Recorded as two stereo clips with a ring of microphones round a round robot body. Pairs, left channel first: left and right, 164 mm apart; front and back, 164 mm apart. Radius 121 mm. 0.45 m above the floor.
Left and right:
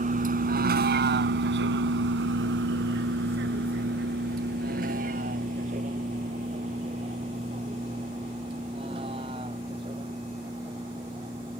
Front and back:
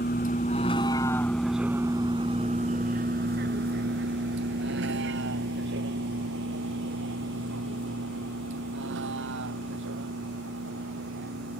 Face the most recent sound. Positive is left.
turn(degrees=-165)